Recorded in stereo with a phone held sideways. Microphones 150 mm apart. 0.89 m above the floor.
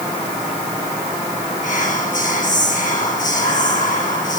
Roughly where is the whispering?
Left.